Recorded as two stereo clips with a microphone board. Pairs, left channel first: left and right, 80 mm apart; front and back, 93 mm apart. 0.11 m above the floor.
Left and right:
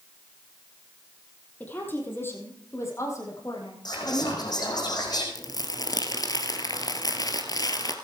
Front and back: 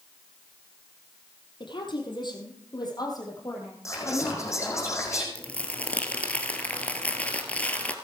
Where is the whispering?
55° left, 5 m.